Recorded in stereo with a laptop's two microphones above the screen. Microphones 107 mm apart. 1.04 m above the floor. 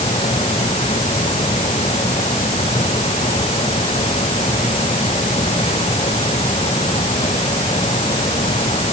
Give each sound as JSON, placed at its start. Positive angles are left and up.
{"t": 0.0, "sound": "a fan", "side_deg": 75}